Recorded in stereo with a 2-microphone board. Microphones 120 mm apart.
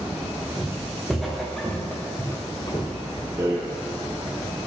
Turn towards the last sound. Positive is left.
turn(degrees=-25)  # may be behind; listen again after turning